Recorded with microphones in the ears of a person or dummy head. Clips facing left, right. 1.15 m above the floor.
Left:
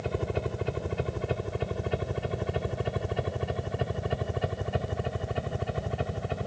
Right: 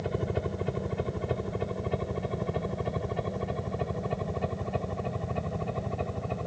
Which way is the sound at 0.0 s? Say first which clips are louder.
Even; centre (ahead or behind).